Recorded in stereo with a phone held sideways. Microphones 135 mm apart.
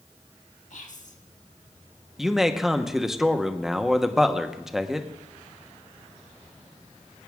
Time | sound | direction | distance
0.7 | whispering | 65° left (ahead or behind) | 1.7 m
2.2 | a man speaking | 5° right (ahead or behind) | 1.0 m